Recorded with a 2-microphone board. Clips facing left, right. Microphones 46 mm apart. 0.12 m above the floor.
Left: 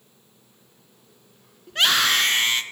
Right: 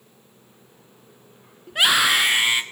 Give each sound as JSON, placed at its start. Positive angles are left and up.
{"t": 1.7, "sound": "a scream", "side_deg": -10, "distance_m": 1.1}